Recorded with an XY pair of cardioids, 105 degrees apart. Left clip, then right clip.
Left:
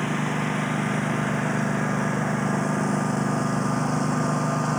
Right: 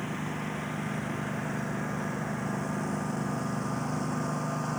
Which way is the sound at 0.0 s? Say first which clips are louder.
Left 9 dB; 55° left.